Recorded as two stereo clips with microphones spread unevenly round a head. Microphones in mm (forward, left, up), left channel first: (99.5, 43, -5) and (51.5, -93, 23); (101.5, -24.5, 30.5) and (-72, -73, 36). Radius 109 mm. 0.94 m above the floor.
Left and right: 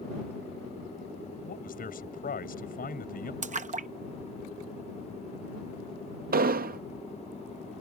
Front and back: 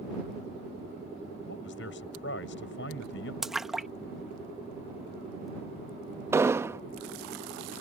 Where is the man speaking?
50° left.